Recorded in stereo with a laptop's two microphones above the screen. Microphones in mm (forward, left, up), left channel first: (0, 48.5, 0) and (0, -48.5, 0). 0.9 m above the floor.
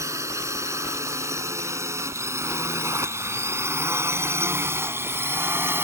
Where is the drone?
30° right (ahead or behind); by 5.8 s 25° right (ahead or behind).